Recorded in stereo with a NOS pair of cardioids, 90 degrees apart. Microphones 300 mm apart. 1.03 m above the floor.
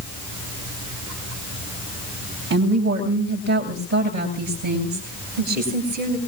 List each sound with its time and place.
2.5 s a woman speaking: 60° right, 7.5 m; by 6.2 s 80° right, 8 m